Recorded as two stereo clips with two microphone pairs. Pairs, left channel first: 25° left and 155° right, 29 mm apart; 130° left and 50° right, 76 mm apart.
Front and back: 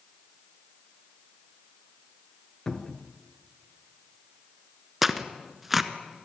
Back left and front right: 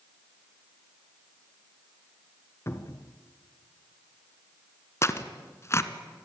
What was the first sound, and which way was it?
A cupboard door, 85° left.